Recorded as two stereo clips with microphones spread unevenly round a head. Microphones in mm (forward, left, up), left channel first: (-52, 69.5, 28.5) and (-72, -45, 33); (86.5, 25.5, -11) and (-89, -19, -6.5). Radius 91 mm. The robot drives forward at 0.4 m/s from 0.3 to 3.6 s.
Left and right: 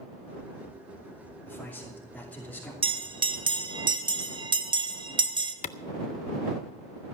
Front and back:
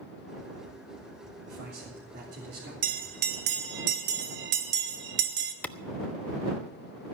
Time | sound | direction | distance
1.5 | a man speaking | 155° left | 3 m
2.8 | a bell | 130° right | 1.1 m
5.6 | a clap | 95° left | 0.5 m